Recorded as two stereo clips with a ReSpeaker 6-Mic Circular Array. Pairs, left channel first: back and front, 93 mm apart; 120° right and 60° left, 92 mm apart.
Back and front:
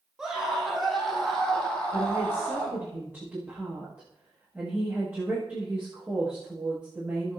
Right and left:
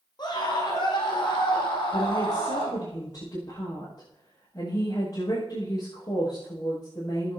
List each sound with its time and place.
0.2 s a scream: 85° right, 5.5 m; by 2.8 s 105° right, 6 m
1.9 s a woman speaking: 70° right, 10 m